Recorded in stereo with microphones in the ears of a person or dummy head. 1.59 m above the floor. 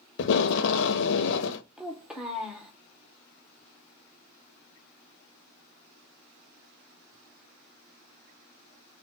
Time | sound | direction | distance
0.2 | tape being pulled | 70° left (ahead or behind) | 0.6 m
1.8 | a child speaking | centre (ahead or behind) | 0.8 m